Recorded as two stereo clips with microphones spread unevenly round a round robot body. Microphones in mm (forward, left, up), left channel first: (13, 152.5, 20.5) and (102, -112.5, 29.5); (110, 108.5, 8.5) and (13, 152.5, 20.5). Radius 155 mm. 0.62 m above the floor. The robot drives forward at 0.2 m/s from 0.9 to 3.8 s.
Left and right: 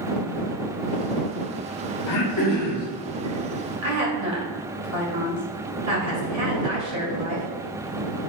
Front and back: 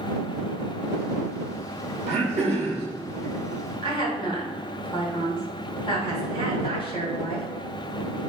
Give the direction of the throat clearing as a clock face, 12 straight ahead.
7 o'clock.